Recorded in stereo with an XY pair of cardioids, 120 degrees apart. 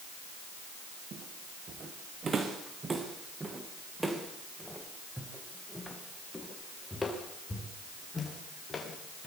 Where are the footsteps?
45° right, 4.5 m; by 9.3 s 25° left, 6.5 m.